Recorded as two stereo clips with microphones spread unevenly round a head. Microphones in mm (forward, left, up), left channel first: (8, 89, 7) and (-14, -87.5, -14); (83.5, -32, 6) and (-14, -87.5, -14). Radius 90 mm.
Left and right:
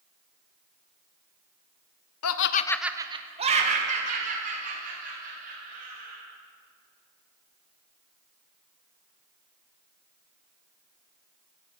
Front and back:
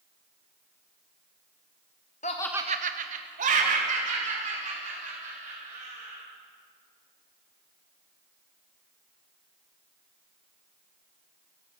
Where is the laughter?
85° left, 0.7 m; by 6.2 s 140° right, 5.5 m.